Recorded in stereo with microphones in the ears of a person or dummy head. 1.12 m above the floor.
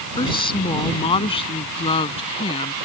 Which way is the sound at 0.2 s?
25° left (ahead or behind).